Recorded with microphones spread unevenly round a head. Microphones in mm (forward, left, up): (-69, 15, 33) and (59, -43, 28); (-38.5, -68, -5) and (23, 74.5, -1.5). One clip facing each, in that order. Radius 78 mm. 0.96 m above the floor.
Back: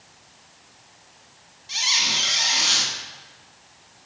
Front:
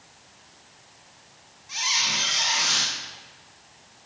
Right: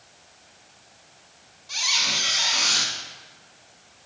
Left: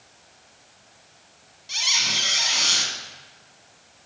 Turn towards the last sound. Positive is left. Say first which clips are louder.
# even, right 1 dB
turn(degrees=105)